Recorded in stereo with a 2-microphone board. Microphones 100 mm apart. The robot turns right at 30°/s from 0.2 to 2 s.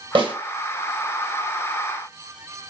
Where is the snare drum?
60° right (ahead or behind), 1.9 m.